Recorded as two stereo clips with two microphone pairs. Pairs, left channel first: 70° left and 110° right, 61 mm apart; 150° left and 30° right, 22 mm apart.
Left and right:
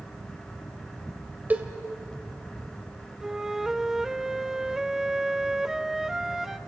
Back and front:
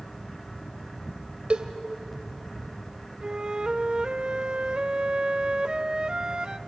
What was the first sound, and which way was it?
A cowbell, 55° right.